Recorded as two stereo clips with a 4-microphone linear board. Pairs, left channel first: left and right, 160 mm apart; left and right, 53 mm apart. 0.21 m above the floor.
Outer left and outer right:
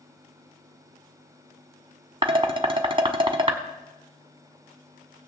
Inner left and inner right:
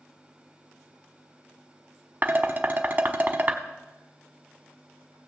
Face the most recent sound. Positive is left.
turn(degrees=-35)  # may be behind; listen again after turning